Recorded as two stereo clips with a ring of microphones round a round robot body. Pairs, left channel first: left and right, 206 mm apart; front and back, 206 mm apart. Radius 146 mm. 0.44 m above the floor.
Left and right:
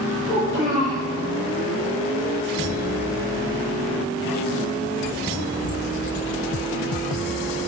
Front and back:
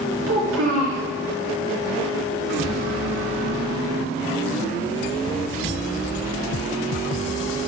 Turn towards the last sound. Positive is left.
turn(degrees=165)